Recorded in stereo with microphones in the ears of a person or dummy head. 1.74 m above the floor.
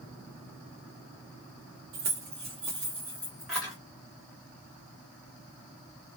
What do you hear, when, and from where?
1.9 s keys jangling: 40° right (ahead or behind), 1.0 m; by 3.8 s centre (ahead or behind), 1.6 m